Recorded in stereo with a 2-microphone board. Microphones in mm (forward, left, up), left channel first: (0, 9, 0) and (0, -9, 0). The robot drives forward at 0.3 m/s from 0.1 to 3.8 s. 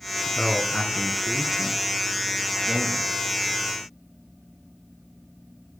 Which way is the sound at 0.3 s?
45° left (ahead or behind).